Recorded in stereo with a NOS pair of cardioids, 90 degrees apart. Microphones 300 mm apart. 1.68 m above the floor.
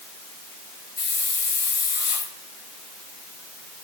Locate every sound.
1.0 s a hiss: 30° left, 4 m